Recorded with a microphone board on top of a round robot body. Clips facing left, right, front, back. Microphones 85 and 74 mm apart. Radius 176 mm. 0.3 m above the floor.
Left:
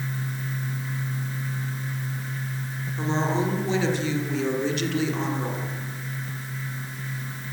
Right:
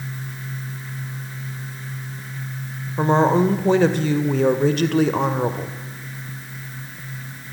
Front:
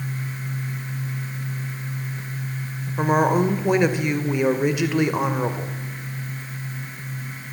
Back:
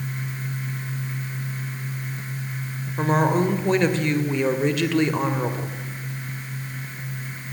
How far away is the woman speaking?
About 2 m.